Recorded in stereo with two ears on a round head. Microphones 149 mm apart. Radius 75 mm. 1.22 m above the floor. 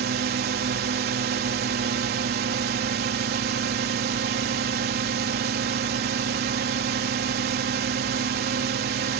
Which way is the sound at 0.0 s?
65° right (ahead or behind).